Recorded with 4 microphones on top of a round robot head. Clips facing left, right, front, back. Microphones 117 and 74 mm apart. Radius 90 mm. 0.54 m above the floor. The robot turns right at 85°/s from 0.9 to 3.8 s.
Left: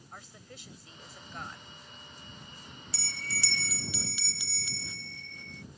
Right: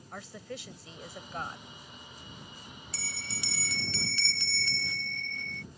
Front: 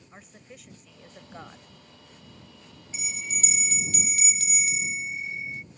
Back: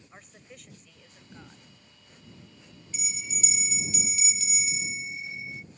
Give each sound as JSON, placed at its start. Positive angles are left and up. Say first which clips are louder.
{"t": 0.1, "sound": "a woman speaking", "louder": "right 9 dB, front 2 dB", "azimuth_deg": -85}
{"t": 2.9, "sound": "a bell", "louder": "left 3 dB, front 4 dB", "azimuth_deg": -60}